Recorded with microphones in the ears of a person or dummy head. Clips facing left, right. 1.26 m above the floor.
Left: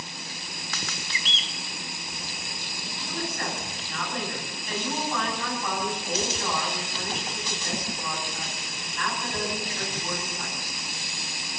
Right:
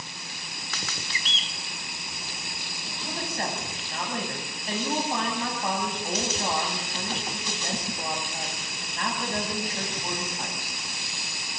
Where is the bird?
35° right (ahead or behind), 1.1 m.